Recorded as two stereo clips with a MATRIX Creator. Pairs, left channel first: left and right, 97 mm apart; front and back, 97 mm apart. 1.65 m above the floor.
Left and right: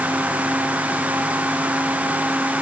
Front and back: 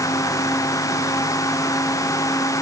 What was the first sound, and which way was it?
Only background noise.